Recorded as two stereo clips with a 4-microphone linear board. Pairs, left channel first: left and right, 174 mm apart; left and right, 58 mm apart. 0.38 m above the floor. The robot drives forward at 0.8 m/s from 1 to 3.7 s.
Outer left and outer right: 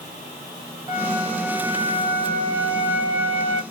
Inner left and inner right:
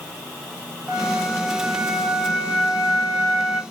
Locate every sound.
0.9 s a flute: 20° right (ahead or behind), 2 m; by 3.6 s 30° right (ahead or behind), 1.7 m